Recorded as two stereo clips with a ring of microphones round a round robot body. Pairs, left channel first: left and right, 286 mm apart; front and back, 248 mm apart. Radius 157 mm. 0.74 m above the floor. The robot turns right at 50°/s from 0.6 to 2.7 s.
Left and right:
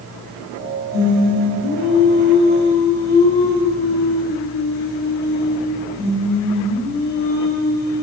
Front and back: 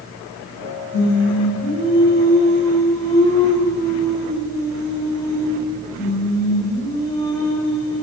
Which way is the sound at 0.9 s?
10° right.